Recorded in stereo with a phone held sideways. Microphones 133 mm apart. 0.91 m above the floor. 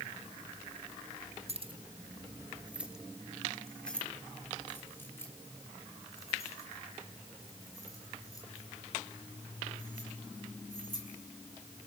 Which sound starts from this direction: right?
Keys jangling, at 1.5 s.